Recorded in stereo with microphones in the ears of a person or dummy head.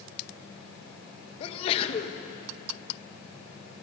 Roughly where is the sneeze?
Left.